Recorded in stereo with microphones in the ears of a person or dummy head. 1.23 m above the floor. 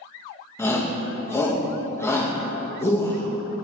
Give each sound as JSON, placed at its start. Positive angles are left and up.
{"t": 0.6, "sound": "a shout", "side_deg": 10, "distance_m": 1.0}